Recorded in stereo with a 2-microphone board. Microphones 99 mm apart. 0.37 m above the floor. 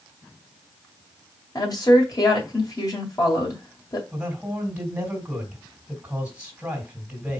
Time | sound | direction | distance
1.6 | a woman speaking | 45° left (ahead or behind) | 1.9 m
4.1 | a man speaking | 10° right (ahead or behind) | 2 m